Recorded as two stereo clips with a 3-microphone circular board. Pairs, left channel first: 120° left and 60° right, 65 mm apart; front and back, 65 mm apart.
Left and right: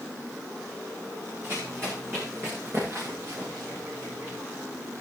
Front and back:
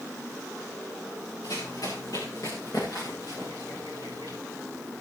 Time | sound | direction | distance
1.4 | running footsteps | 15° right | 8 m